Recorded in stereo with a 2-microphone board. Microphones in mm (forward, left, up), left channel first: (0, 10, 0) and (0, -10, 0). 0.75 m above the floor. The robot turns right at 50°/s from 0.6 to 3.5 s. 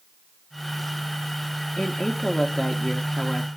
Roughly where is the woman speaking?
Left.